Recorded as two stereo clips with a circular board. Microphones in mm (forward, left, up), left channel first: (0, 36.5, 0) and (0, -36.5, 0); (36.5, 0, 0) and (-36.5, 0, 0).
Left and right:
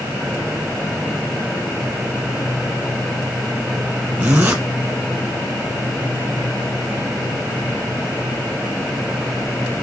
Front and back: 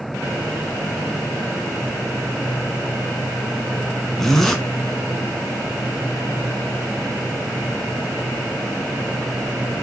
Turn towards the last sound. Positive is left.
turn(degrees=-80)